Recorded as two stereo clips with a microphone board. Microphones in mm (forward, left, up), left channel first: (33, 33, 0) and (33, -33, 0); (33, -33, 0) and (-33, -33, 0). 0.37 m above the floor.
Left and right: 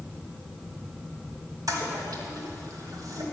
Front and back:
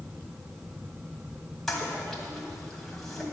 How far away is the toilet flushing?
About 2 m.